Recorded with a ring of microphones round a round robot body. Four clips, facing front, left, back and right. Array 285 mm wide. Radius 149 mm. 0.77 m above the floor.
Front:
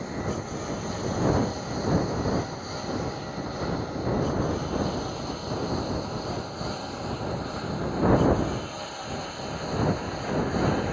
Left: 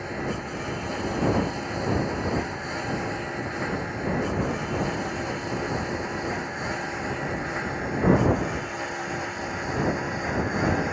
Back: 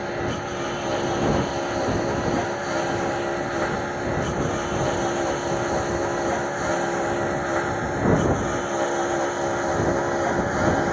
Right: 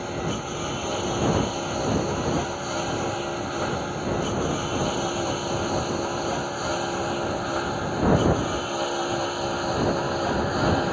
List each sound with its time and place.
0.0 s a lawn mower: 165° right; by 10.9 s 160° right